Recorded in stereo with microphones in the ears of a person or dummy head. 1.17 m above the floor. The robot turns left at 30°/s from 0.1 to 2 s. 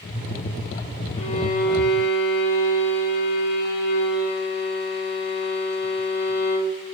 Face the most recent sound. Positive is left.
turn(degrees=50)  # may be behind; listen again after turning